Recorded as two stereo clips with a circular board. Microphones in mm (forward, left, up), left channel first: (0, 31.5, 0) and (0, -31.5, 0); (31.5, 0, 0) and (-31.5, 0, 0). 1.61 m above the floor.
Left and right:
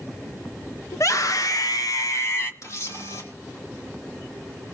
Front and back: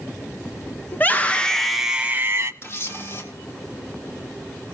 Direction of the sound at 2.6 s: 50° left.